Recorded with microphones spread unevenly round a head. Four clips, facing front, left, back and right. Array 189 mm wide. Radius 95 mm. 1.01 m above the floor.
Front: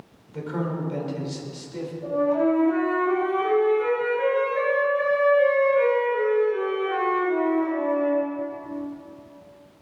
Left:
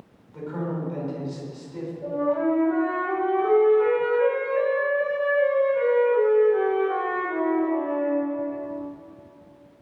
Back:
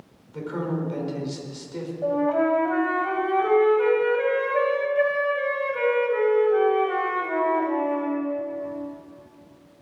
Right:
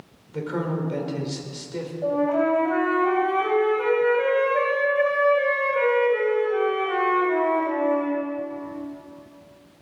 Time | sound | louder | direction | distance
0.3 | a man speaking | right 3 dB, back 1 dB | 90° right | 4.5 m
2.0 | a flute | right 2 dB, even | 145° right | 3.5 m